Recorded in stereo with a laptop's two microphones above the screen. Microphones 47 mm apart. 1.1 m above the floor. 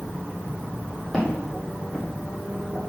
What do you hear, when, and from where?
1.1 s footsteps: 10° left (ahead or behind), 2.5 m; by 2.8 s 35° right (ahead or behind), 1.2 m